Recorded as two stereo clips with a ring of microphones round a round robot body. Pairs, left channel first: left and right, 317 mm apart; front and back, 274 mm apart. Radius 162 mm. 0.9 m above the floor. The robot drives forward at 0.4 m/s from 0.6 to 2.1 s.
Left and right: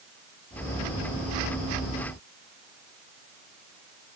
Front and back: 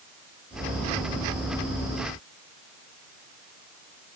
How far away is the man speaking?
I don't hear a man speaking.